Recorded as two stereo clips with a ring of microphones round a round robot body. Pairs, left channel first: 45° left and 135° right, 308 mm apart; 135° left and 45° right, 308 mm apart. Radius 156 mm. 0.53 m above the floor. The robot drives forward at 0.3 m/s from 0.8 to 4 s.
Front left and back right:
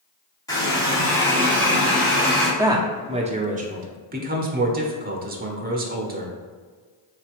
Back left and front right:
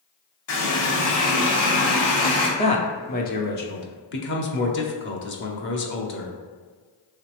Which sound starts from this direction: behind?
A man speaking, at 2.6 s.